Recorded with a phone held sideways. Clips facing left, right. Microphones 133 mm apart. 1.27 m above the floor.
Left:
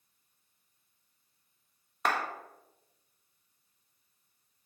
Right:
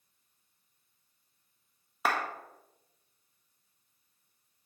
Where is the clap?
5° right (ahead or behind), 1.5 m.